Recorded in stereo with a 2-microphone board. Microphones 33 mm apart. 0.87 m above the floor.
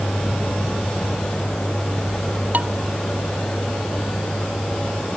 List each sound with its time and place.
0.0 s a vehicle: 65° left (ahead or behind); by 5.2 s 70° left (ahead or behind)
2.5 s dishes clattering: 55° right (ahead or behind)